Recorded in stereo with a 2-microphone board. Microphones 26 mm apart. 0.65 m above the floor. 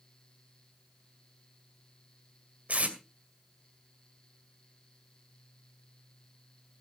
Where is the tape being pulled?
65° right (ahead or behind), 2.5 m.